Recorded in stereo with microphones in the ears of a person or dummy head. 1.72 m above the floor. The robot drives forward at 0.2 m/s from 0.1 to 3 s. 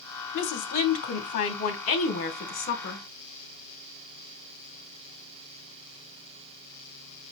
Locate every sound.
0.3 s a woman speaking: 55° left (ahead or behind), 1.1 m; by 3.0 s 40° left (ahead or behind), 1.4 m